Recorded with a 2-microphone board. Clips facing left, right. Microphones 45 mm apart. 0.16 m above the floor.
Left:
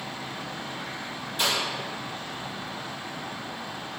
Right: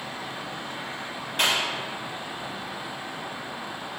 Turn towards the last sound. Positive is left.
turn(degrees=-60)  # may be behind; listen again after turning